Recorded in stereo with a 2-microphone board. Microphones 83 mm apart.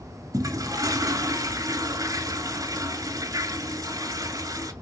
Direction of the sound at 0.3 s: 45° right (ahead or behind).